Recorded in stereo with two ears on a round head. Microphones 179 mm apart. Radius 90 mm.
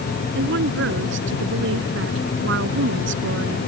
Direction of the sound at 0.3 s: 65° right (ahead or behind).